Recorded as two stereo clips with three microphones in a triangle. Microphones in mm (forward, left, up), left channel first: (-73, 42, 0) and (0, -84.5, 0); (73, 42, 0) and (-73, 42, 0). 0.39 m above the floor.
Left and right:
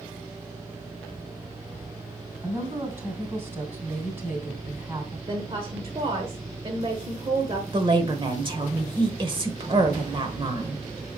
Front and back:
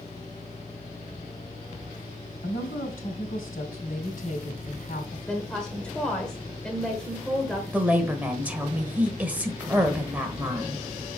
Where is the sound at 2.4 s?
15° left, 3 m.